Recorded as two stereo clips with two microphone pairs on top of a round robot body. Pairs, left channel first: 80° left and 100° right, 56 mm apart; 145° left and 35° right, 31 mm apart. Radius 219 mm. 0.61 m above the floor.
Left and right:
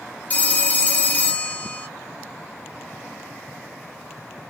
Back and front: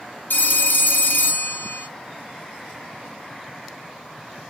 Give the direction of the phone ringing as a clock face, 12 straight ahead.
7 o'clock.